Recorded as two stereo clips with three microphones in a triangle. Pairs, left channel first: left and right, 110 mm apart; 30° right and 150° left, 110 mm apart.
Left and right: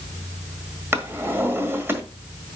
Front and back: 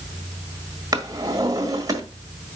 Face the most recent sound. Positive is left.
turn(degrees=-160)